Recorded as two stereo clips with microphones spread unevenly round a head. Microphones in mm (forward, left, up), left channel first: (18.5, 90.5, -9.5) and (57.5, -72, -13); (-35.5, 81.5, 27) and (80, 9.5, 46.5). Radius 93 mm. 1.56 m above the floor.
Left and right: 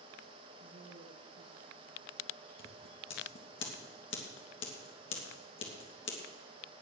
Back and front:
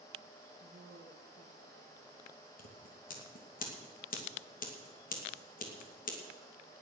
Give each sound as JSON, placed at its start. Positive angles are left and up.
{"t": 0.6, "sound": "a woman speaking", "azimuth_deg": -70, "distance_m": 2.5}
{"t": 2.6, "sound": "scissors", "azimuth_deg": 135, "distance_m": 3.0}